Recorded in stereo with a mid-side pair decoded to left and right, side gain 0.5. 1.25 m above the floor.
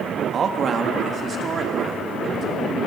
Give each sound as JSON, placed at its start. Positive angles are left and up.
{"t": 0.3, "sound": "a man speaking", "azimuth_deg": -50, "distance_m": 2.0}